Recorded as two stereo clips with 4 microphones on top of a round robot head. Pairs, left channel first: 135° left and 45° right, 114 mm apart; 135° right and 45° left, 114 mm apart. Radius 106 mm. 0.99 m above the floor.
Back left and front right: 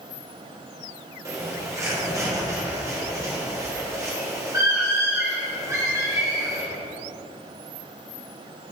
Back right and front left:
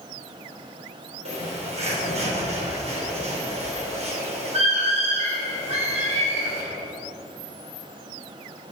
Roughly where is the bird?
Ahead.